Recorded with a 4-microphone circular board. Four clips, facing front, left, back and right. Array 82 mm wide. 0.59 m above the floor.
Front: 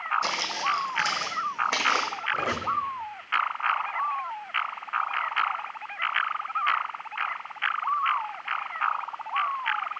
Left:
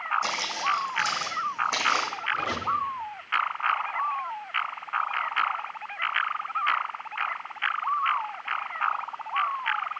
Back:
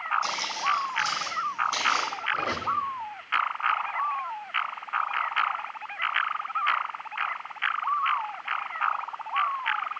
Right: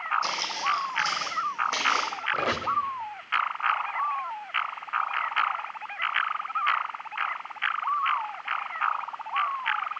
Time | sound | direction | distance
0.2 | footsteps | 15° left | 2 m
2.3 | a squeak | 75° right | 0.8 m